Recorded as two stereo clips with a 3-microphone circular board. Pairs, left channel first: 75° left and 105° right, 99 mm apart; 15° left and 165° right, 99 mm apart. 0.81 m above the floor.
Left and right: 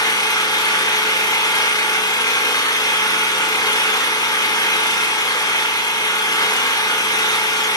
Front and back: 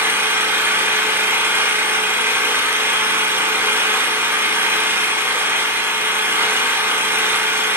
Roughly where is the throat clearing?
No throat clearing in this recording.